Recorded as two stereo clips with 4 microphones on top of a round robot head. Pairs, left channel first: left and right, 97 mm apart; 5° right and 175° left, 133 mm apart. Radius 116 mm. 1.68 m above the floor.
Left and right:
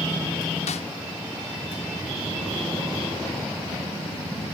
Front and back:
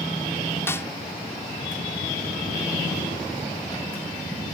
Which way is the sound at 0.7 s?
70° left.